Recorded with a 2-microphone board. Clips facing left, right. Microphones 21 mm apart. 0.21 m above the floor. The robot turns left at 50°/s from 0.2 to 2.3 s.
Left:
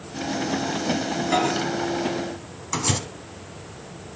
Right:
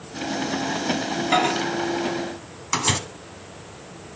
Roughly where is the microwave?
Right.